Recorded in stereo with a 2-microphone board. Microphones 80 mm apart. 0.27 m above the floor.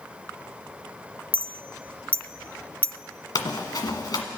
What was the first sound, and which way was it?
A clink, 20° left (ahead or behind).